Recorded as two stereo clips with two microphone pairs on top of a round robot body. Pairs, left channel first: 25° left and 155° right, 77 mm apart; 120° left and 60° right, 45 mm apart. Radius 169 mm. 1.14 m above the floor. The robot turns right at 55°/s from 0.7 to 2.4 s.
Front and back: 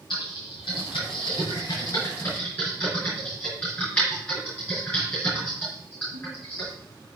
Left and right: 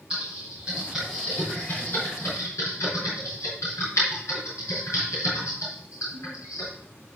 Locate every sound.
0.1 s typing on a keyboard: 10° left, 5.5 m; by 6.7 s 100° left, 5.5 m